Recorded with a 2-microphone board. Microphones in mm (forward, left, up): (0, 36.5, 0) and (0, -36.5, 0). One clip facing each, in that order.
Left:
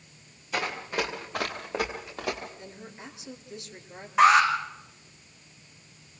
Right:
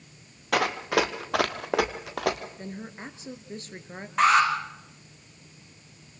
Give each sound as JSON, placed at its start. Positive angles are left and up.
{"t": 0.5, "sound": "running footsteps", "side_deg": -75, "distance_m": 2.5}
{"t": 2.6, "sound": "a woman speaking", "side_deg": -40, "distance_m": 2.5}
{"t": 4.2, "sound": "an alarm", "side_deg": 5, "distance_m": 7.0}